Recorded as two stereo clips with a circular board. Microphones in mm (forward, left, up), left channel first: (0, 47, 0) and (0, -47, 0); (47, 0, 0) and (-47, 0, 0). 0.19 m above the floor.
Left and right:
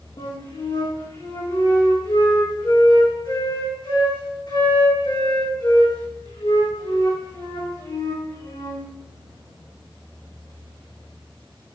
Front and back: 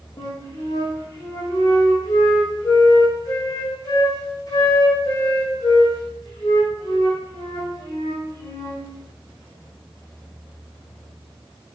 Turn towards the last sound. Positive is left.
turn(degrees=50)